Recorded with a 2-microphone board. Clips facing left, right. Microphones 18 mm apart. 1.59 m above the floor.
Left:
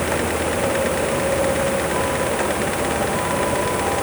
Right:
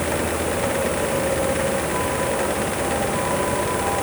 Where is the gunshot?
No gunshot in this recording.